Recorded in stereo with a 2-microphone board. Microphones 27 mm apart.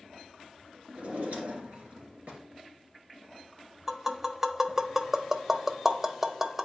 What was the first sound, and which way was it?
A drawer, 70° right (ahead or behind).